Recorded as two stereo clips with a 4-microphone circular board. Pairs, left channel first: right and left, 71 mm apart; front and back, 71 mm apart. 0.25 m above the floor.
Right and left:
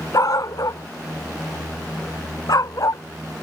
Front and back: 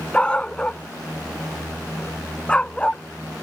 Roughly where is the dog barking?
Right.